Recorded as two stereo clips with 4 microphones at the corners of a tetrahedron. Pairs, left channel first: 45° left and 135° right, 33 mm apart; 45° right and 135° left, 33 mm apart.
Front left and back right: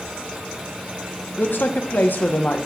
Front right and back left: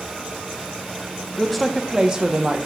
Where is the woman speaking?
40° left, 1.2 m; by 2.7 s 90° left, 1.2 m.